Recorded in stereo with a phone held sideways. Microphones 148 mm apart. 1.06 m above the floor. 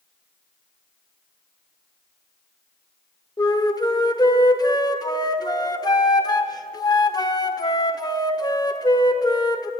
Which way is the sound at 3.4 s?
25° left (ahead or behind).